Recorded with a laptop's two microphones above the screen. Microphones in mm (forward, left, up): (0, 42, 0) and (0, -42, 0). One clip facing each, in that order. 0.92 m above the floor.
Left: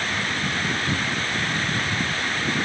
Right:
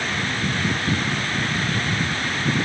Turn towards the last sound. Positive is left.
No sound to turn to.